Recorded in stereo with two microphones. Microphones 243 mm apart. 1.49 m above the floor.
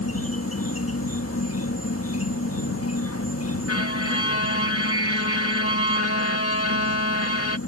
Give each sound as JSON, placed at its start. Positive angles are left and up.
{"t": 0.0, "sound": "an insect", "side_deg": 70}
{"t": 3.7, "sound": "a violin", "side_deg": 75}